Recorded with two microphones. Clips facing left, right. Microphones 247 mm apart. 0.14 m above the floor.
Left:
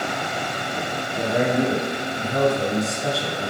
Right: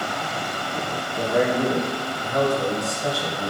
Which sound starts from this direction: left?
A man speaking, at 1.1 s.